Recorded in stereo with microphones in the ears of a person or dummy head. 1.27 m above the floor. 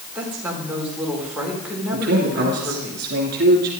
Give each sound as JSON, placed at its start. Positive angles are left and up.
{"t": 0.1, "sound": "a woman speaking", "side_deg": -15, "distance_m": 4.0}
{"t": 1.9, "sound": "a man speaking", "side_deg": -65, "distance_m": 3.5}